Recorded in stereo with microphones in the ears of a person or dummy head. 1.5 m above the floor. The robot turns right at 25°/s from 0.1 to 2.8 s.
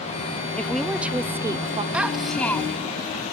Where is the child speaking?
5° right (ahead or behind); by 3.0 s 20° left (ahead or behind).